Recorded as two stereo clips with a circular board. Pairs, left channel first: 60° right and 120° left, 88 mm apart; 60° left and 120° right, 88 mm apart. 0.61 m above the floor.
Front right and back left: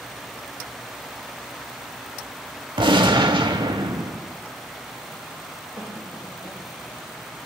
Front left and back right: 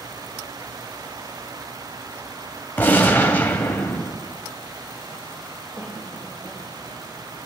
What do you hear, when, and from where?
2.8 s a gunshot: 125° left, 0.7 m
5.8 s a cough: 75° right, 3.5 m